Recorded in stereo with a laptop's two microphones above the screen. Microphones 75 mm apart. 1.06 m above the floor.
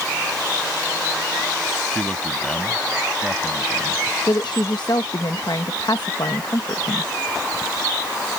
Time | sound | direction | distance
1.9 | a man speaking | 10° left (ahead or behind) | ?
4.3 | a woman speaking | 70° left (ahead or behind) | ?